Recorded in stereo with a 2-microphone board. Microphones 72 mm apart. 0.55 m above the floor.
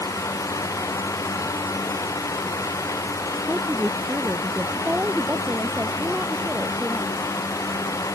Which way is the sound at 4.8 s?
20° right (ahead or behind).